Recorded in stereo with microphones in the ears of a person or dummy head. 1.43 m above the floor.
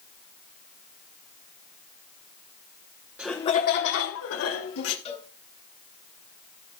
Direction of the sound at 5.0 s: 35° left (ahead or behind).